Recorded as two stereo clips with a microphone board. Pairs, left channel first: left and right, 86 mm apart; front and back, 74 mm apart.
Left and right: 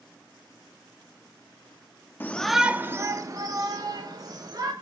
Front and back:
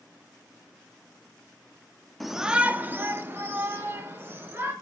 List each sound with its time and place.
2.2 s a shout: 85° left, 0.6 m; by 4.7 s 125° right, 2 m